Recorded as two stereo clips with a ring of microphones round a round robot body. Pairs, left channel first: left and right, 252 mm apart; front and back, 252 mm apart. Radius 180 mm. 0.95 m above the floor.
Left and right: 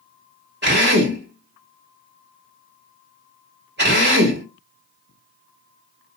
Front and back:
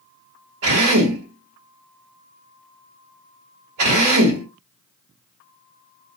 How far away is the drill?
About 1.5 m.